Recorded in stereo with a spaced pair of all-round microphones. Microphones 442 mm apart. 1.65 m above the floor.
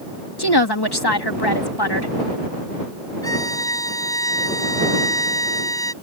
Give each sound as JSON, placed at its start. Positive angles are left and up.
{"t": 0.4, "sound": "a woman speaking", "side_deg": 60}
{"t": 3.2, "sound": "a violin", "side_deg": 5}